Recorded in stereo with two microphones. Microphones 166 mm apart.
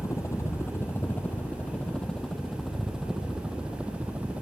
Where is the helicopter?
20° left (ahead or behind); by 4.4 s 10° right (ahead or behind).